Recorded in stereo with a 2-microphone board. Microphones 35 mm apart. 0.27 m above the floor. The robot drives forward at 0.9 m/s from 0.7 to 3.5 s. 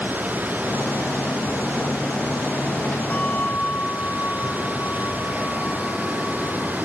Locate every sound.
0.0 s running water: 55° right (ahead or behind)
3.1 s a bell: 45° left (ahead or behind)